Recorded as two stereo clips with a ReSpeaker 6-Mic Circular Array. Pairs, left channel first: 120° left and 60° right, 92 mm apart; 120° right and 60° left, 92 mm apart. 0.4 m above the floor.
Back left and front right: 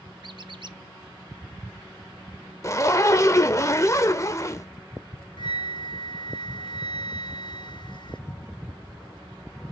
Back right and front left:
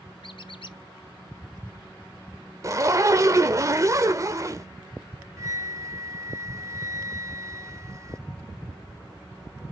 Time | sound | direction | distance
0.2 | a squeak | 95° right | 0.7 m
2.6 | a zipper | 85° left | 1.0 m
5.4 | a flute | 105° left | 0.8 m